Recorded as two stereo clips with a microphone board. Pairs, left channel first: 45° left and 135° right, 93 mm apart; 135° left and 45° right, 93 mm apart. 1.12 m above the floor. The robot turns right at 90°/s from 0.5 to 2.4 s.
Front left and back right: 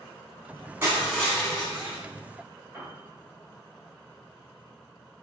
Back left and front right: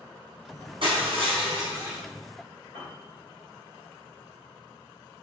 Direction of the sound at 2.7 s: 165° left.